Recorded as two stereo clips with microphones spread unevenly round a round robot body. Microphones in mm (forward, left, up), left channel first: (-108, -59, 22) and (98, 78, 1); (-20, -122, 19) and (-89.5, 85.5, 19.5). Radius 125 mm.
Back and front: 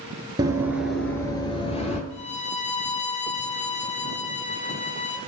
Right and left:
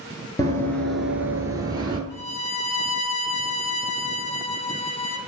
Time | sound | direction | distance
0.4 | running footsteps | 25° right | 0.7 m
2.1 | a violin | 80° right | 0.7 m